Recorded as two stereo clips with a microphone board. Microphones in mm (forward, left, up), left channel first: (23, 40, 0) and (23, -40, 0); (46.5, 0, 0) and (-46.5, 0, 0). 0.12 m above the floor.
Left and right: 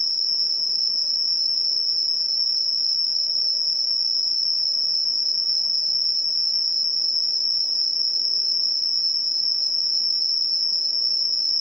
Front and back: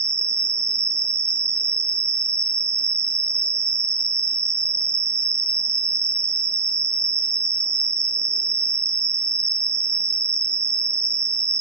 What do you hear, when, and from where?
0.0 s an insect: straight ahead, 0.8 m